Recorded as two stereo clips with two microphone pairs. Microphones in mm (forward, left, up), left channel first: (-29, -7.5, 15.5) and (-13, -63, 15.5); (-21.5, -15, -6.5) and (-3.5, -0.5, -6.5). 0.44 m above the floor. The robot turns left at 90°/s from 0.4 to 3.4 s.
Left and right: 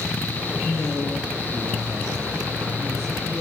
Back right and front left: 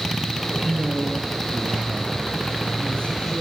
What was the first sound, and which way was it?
A man speaking, 75° left.